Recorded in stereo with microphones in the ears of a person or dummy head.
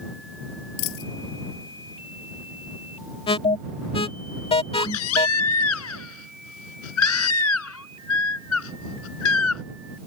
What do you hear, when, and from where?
0.8 s a dropped coin: 65° left (ahead or behind)
3.3 s an alarm: 25° left (ahead or behind)
4.7 s a baby crying: 80° left